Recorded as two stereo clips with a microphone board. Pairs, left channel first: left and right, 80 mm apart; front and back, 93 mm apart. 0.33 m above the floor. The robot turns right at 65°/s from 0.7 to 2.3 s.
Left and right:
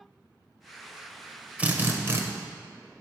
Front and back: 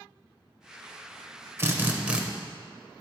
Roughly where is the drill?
Behind right.